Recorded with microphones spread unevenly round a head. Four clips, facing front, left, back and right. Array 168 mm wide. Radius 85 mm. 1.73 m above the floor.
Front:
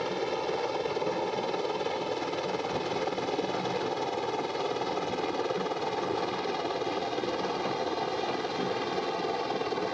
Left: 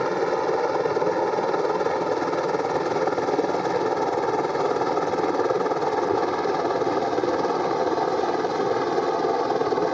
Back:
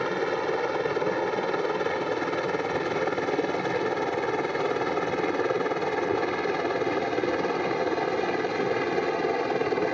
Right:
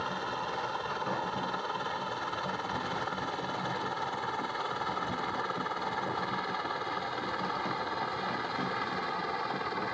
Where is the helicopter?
110° left; by 9.9 s 115° left.